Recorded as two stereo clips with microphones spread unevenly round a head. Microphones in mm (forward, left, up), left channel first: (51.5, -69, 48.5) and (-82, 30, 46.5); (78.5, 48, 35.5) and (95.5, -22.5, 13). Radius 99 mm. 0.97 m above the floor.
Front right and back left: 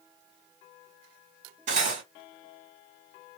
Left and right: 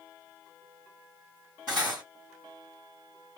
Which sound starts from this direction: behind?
Cutlery clinking, at 1.7 s.